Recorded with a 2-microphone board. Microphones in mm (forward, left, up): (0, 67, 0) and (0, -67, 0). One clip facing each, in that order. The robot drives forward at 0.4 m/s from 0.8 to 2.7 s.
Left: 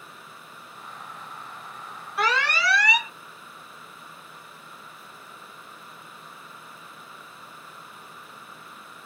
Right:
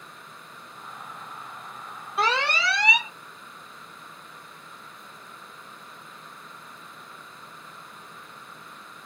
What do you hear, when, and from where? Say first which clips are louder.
2.2 s an alarm: even; 25° right (ahead or behind), 1.2 m